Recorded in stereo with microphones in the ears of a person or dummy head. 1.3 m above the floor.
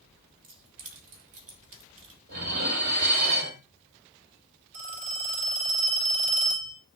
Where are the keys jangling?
40° right (ahead or behind), 2 m.